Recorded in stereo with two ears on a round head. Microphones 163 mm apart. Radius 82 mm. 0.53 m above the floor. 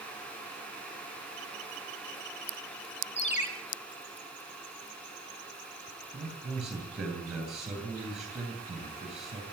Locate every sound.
3.2 s a ringtone: 40° left (ahead or behind), 5.5 m
6.1 s a man speaking: 5° right (ahead or behind), 9.5 m